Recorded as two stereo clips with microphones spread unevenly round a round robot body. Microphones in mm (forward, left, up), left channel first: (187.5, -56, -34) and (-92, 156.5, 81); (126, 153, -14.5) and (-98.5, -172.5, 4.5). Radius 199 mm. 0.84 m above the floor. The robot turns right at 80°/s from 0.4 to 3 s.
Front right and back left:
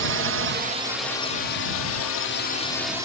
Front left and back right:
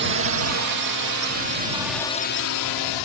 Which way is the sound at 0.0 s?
155° right.